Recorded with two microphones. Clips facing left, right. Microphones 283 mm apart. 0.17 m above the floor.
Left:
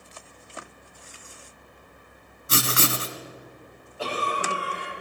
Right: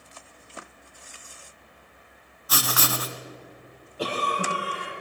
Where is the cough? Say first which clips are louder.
Right 1 dB; 40° right (ahead or behind), 5 m.